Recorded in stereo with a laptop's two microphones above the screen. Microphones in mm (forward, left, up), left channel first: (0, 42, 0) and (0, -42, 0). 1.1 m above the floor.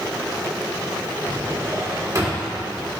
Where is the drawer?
35° right (ahead or behind), 1.9 m.